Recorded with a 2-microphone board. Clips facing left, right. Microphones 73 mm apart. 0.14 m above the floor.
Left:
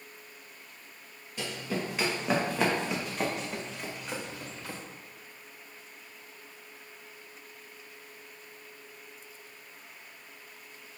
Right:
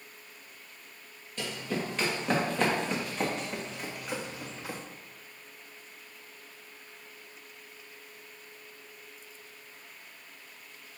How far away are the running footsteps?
About 2.5 m.